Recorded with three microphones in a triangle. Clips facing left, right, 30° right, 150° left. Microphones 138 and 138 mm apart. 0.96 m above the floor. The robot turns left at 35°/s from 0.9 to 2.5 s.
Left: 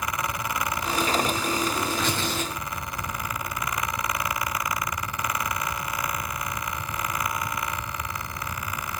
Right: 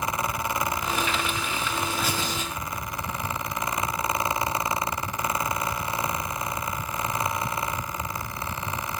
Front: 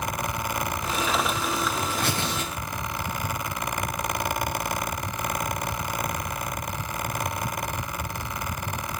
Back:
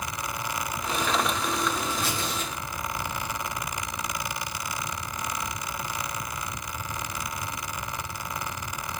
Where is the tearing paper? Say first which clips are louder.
Left 1 dB, front 2 dB; straight ahead, 3 m; by 3.4 s 20° right, 3 m.